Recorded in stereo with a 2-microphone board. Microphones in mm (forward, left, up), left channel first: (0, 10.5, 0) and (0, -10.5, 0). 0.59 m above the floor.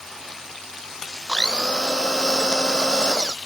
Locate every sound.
1.3 s a blender: 45° left (ahead or behind)